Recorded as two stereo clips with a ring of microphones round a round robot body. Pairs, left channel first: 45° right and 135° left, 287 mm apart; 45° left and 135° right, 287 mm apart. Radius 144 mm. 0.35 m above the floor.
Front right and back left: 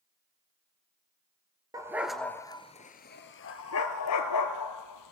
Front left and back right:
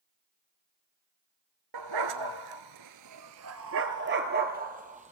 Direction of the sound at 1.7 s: 145° right.